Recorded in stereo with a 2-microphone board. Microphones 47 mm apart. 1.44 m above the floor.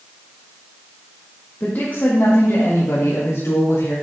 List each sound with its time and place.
1.6 s a woman speaking: 40° left (ahead or behind), 1.9 m; by 4.0 s 65° left (ahead or behind), 3.5 m